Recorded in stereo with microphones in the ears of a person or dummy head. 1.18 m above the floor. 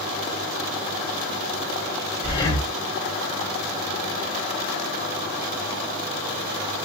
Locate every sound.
2.2 s breathing: 25° left (ahead or behind), 1.1 m